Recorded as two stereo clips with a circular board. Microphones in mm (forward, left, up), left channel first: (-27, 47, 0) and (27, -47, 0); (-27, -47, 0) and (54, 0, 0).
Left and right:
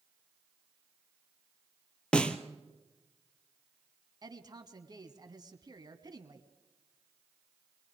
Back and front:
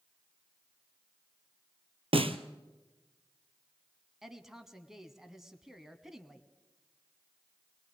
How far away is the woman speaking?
About 1.4 m.